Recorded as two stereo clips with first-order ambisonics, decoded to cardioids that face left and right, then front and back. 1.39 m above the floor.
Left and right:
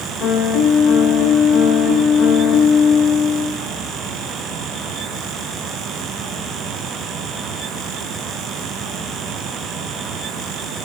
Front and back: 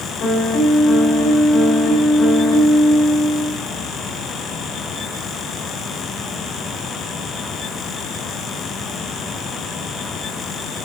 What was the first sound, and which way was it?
A piano, 50° left.